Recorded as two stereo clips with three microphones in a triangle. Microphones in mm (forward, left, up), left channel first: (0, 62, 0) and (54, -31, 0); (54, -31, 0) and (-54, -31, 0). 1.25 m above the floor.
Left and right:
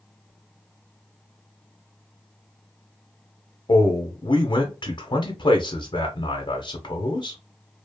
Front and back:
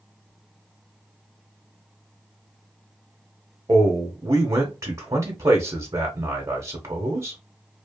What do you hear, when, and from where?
3.7 s a man speaking: 130° left, 0.8 m